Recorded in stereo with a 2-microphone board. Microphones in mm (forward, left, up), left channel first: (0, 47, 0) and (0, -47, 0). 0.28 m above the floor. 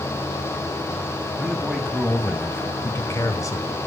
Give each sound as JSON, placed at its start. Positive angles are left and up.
{"t": 1.4, "sound": "a man speaking", "side_deg": 5, "distance_m": 1.9}